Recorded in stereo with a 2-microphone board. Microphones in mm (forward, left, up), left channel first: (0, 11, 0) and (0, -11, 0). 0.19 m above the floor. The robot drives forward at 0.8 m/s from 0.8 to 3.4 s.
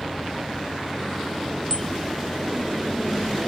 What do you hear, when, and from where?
1.7 s a bicycle bell: 25° left (ahead or behind)